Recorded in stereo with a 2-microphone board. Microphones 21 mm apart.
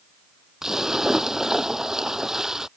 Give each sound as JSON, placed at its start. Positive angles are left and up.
{"t": 0.6, "sound": "a splash", "side_deg": -25}